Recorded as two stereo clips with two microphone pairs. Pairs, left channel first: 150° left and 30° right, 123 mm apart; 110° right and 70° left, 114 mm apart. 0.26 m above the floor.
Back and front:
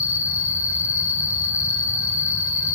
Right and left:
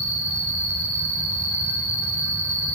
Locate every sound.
0.0 s an insect: 100° right, 3 m